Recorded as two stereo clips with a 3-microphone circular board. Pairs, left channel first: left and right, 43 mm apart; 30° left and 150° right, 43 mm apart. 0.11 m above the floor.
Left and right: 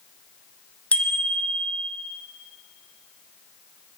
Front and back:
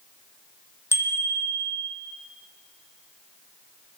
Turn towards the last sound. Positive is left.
turn(degrees=30)